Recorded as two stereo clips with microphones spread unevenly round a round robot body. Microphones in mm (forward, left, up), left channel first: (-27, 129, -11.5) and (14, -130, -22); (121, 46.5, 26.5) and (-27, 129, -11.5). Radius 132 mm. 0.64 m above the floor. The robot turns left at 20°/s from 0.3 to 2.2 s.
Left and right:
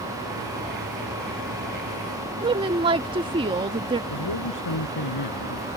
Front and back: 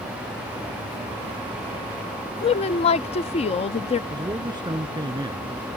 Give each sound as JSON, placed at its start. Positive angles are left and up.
{"t": 2.4, "sound": "a woman speaking", "azimuth_deg": -50}
{"t": 4.1, "sound": "a man speaking", "azimuth_deg": 85}